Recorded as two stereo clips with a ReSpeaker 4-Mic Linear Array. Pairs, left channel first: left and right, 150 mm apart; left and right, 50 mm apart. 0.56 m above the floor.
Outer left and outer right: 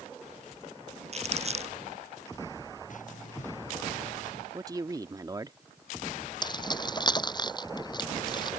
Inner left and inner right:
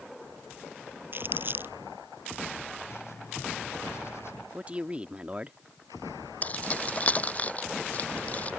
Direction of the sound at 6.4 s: 30° left (ahead or behind).